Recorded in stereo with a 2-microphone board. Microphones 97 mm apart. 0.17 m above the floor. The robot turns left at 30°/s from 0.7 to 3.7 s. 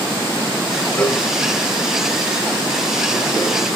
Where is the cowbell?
15° left (ahead or behind), 0.6 m; by 1.2 s 20° left (ahead or behind), 0.6 m.